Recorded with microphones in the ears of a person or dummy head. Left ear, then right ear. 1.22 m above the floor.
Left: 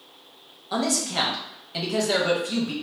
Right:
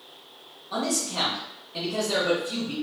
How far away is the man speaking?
About 0.9 m.